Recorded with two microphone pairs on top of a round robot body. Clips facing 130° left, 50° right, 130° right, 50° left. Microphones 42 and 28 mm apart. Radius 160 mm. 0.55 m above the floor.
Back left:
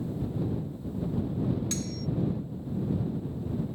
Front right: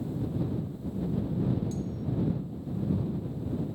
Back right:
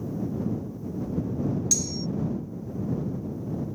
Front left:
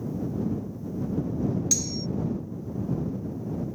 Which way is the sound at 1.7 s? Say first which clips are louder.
Back left 1 dB, even; 130° left.